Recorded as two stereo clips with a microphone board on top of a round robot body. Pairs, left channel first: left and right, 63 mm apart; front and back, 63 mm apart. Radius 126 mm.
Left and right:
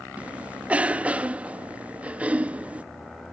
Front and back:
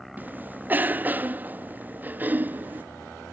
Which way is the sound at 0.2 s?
140° right.